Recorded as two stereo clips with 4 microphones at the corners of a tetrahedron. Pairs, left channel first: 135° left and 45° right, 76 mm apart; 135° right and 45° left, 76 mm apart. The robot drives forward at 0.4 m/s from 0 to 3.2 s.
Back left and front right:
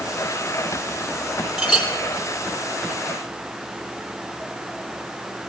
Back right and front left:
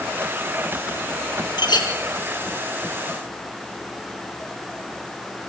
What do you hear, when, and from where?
1.6 s a clink: 125° right, 3.5 m